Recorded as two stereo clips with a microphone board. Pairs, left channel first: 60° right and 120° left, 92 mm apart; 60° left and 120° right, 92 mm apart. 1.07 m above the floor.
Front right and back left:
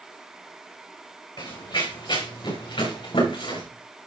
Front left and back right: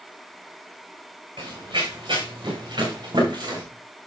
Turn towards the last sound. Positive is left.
turn(degrees=-80)